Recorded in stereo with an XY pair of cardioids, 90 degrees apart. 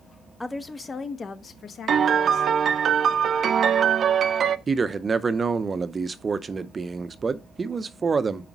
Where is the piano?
55° right, 0.6 m.